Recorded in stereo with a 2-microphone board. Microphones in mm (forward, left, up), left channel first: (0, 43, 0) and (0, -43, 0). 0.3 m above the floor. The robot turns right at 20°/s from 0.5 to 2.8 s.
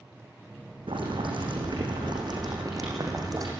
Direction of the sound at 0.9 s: 85° right.